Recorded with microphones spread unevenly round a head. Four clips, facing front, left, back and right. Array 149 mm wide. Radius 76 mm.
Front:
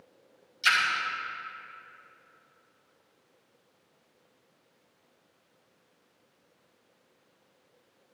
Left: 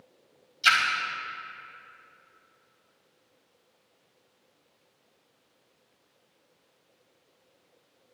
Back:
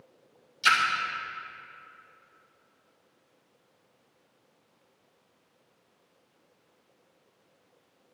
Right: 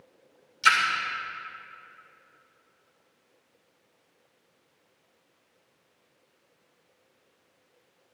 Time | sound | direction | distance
0.6 | a splash | 135° right | 2.5 m